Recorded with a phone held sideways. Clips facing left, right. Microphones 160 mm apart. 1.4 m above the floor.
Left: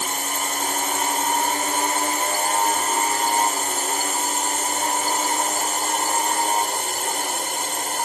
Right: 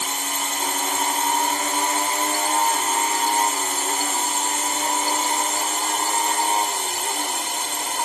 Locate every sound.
0.0 s a drone: 50° left (ahead or behind)